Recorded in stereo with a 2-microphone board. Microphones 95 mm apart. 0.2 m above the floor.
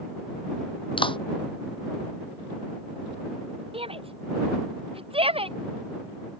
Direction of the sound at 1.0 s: 65° left (ahead or behind).